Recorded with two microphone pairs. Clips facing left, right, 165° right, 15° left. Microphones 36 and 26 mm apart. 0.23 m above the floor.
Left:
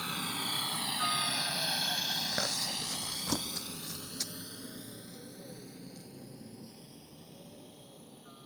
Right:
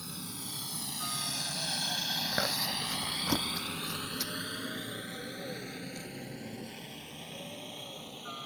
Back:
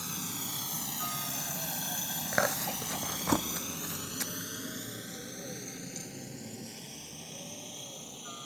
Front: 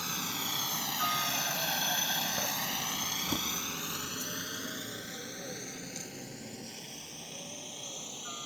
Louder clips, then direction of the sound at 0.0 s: Left 8 dB, front 4 dB; 75° left.